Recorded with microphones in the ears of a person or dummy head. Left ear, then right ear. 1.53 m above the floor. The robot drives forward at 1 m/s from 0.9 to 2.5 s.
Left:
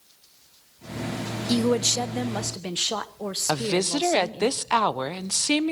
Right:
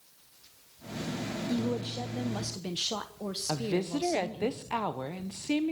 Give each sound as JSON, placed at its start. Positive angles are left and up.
{"t": 1.5, "sound": "a woman speaking", "side_deg": 70, "distance_m": 0.5}
{"t": 3.5, "sound": "a woman speaking", "side_deg": 45, "distance_m": 0.7}